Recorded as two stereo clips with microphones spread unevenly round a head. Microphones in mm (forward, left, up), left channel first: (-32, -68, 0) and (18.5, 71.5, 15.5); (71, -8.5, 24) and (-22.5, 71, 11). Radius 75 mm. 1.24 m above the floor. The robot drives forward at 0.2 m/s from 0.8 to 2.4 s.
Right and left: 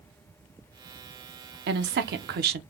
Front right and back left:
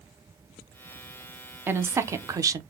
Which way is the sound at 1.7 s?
70° left.